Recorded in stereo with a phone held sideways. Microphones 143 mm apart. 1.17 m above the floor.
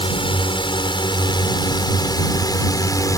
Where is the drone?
40° left (ahead or behind); by 3.2 s 25° left (ahead or behind).